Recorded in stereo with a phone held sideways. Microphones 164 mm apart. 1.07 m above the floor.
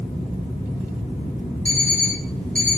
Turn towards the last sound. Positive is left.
turn(degrees=10)  # may be behind; listen again after turning